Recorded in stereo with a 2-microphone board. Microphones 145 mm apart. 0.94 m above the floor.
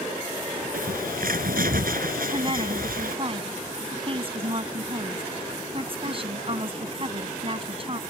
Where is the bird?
80° right.